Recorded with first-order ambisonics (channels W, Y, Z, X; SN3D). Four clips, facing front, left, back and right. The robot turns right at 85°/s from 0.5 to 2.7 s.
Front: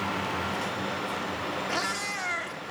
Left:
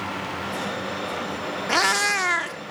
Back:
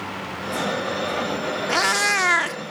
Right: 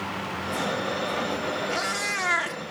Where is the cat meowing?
120° left, 0.7 m; by 2.6 s 165° right, 0.7 m.